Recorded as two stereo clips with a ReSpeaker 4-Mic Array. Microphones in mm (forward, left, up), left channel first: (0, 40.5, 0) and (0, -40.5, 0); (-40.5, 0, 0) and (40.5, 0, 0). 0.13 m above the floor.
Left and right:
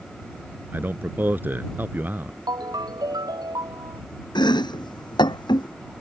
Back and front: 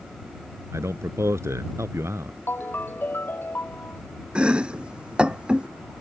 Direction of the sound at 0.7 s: 35° right.